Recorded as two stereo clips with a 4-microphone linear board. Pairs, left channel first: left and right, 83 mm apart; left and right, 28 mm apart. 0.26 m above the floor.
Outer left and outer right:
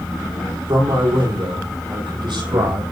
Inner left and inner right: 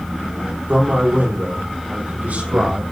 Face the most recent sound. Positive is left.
turn(degrees=-75)  # may be behind; listen again after turning